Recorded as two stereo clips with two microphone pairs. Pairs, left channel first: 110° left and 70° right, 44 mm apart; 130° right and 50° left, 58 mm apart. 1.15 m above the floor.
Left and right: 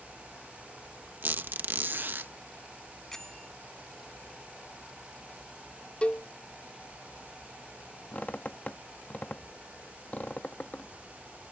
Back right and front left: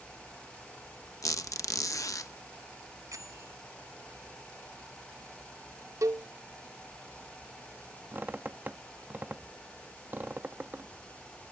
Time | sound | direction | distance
1.2 | a squeak | 110° right | ?
3.1 | a bell | 30° left | ?
6.0 | a cowbell | 50° left | ?
8.1 | a squeak | 80° left | ?